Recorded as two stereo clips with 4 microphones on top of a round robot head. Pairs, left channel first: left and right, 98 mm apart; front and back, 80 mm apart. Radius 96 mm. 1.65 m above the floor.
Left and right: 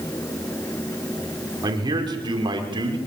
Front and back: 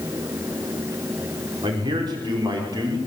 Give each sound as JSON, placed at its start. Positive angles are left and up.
{"t": 1.6, "sound": "a man speaking", "azimuth_deg": -135, "distance_m": 5.5}